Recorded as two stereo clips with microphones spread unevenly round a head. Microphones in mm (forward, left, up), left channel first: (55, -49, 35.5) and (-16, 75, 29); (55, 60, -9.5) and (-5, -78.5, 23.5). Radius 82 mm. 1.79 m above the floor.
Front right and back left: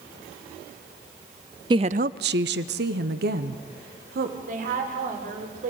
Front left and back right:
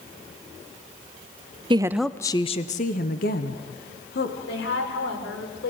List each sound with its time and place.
1.7 s a woman speaking: 175° right, 0.6 m; by 4.3 s 95° left, 2.5 m
4.5 s a woman speaking: 85° left, 7 m